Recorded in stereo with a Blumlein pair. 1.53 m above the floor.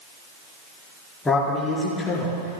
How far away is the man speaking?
About 4.5 m.